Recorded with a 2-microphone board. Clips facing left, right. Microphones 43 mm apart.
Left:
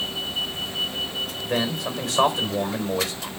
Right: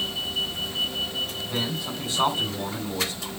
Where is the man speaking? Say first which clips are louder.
Left 4 dB; 80° left, 3.5 m.